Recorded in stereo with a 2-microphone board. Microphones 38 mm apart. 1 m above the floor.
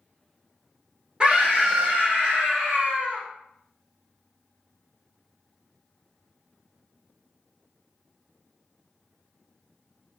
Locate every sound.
1.2 s a scream: 30° right (ahead or behind), 1.0 m; by 3.2 s 65° right (ahead or behind), 1.7 m